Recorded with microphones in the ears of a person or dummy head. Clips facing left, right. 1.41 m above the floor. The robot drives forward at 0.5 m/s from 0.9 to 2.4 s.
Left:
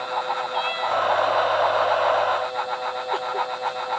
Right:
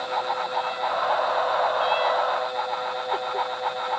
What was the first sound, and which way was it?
Only background noise.